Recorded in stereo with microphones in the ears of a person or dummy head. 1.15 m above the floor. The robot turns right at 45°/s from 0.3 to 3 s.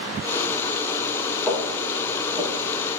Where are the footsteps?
5° left (ahead or behind), 5.5 m; by 3.0 s 40° right (ahead or behind), 4.5 m.